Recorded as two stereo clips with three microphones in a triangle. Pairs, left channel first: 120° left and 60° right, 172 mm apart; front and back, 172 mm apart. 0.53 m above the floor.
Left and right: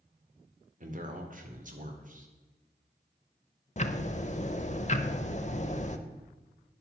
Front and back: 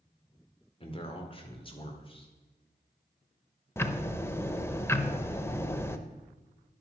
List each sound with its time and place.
0.8 s a man speaking: 45° right, 1.8 m
3.8 s ticking: 75° left, 0.7 m